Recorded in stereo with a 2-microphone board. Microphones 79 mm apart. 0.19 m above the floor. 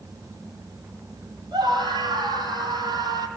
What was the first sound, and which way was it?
A scream, 70° right (ahead or behind).